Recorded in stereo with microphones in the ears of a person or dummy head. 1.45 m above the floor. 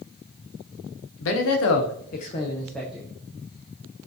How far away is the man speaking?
About 0.9 m.